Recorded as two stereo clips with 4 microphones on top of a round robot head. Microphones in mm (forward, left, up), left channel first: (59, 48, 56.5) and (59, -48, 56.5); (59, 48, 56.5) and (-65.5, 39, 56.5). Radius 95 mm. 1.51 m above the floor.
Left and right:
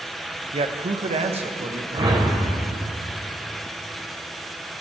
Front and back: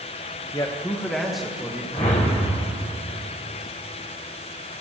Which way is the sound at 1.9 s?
55° right.